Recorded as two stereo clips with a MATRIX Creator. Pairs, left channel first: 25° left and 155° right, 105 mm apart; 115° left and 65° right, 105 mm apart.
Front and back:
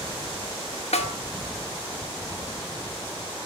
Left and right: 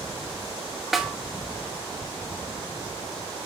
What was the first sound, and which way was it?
A snare drum, 20° left.